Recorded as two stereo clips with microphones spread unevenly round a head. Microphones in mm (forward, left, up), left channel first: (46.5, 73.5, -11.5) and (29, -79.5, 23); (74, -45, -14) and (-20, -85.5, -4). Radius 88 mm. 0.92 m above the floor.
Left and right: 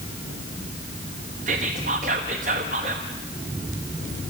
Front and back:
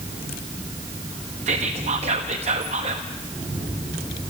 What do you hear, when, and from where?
1.5 s whispering: 150° right, 1.0 m